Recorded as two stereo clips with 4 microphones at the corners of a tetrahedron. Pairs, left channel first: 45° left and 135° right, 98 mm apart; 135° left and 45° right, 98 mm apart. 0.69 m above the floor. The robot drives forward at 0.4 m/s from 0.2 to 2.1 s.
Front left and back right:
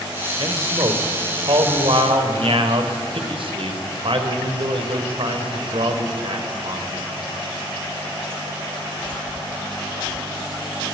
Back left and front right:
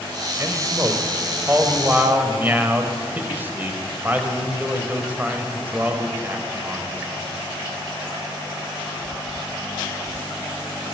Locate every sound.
0.4 s a man speaking: 105° right, 3 m; by 7.0 s 115° right, 3.5 m